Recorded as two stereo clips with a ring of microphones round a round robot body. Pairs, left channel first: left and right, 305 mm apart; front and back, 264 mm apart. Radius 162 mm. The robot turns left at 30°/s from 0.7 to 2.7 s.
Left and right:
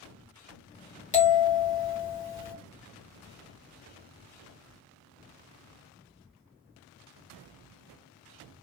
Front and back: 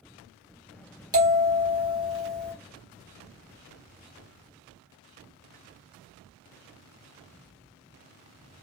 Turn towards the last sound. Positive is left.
turn(degrees=75)